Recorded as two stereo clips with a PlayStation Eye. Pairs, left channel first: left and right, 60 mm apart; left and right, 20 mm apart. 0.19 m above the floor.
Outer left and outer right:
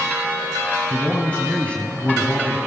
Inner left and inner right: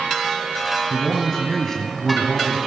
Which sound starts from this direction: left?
A man speaking, at 0.9 s.